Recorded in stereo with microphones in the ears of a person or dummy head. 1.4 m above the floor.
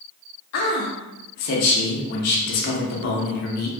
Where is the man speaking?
50° left (ahead or behind), 0.6 m.